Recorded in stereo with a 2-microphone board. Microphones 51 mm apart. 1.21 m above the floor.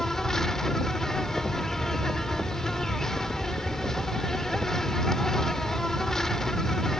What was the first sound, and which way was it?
An insect, 10° left (ahead or behind).